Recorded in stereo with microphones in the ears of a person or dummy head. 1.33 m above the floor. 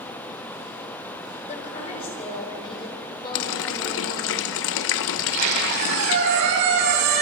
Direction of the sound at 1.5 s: 35° left (ahead or behind).